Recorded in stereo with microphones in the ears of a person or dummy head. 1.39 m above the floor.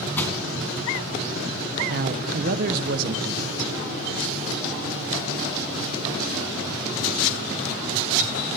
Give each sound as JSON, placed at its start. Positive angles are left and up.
{"t": 0.2, "sound": "crushing", "side_deg": 15, "distance_m": 2.5}
{"t": 1.9, "sound": "a man speaking", "side_deg": -50, "distance_m": 1.1}